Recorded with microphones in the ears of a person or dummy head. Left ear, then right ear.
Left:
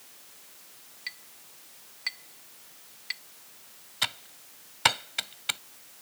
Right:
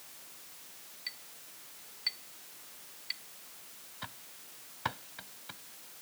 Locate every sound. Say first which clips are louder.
1.1 s a clink: left 4 dB; 20° left (ahead or behind)
4.0 s typing on a keyboard: left 16 dB; 45° left (ahead or behind)